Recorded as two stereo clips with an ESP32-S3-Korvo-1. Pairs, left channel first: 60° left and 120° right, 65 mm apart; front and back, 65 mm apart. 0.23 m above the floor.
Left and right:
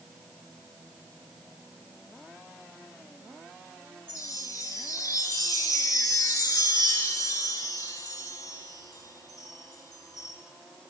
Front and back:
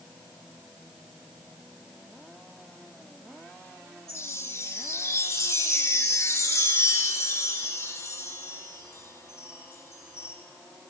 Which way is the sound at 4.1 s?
40° left.